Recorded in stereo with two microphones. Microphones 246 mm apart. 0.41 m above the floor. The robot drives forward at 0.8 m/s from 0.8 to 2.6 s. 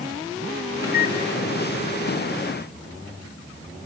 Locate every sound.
0.8 s a microwave: 15° left (ahead or behind), 2.5 m; by 1.2 s 10° left (ahead or behind), 3 m